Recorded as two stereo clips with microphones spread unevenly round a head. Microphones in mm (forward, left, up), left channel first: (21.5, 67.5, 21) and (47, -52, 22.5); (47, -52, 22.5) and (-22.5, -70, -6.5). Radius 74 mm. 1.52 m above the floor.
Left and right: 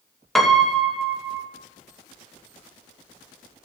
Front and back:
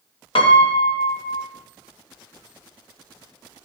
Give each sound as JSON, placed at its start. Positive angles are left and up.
{"t": 0.3, "sound": "a piano", "azimuth_deg": 15, "distance_m": 1.3}